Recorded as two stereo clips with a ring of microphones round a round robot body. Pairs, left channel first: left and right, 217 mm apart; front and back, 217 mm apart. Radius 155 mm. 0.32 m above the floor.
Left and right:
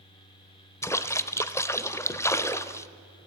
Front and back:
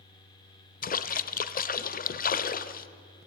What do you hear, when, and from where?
0.8 s a splash: 20° left, 1.1 m